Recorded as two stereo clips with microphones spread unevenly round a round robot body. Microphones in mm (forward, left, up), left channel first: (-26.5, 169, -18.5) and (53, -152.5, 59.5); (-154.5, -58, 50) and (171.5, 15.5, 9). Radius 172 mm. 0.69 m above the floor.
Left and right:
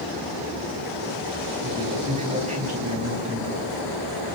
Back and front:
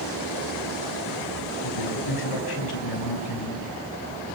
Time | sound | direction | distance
1.6 | a man speaking | 145° right | 5 m